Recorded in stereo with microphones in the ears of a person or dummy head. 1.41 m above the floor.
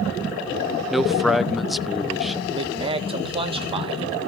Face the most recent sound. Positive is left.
turn(degrees=-25)  # may be behind; listen again after turning